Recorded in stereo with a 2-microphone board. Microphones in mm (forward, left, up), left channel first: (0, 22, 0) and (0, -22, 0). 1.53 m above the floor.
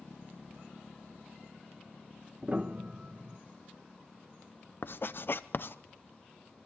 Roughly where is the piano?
Right.